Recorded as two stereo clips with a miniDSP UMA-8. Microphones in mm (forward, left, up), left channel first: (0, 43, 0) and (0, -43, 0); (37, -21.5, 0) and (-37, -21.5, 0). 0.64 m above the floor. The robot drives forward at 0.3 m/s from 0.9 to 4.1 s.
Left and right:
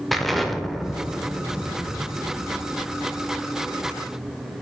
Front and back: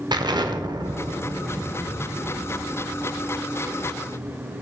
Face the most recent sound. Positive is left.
turn(degrees=180)